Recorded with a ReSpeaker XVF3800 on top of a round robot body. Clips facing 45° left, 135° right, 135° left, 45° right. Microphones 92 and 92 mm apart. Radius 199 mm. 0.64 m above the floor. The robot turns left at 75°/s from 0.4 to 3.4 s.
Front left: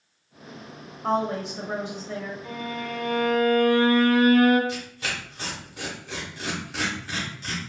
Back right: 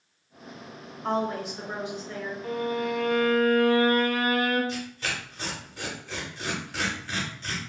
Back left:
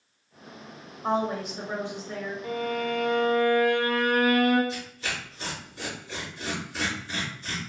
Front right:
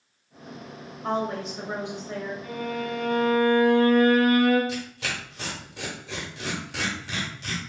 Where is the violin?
175° right, 0.6 m; by 4.6 s 115° left, 0.6 m.